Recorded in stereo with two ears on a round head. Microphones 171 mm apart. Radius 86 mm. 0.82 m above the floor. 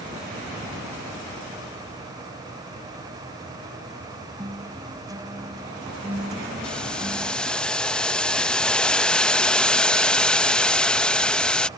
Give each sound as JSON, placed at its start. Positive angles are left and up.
{"t": 4.4, "sound": "a guitar", "side_deg": -20}
{"t": 6.6, "sound": "boiling", "side_deg": 5}